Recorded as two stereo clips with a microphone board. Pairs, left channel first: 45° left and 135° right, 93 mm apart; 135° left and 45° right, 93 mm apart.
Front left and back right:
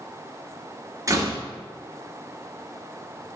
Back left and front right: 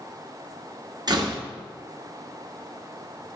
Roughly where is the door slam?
Right.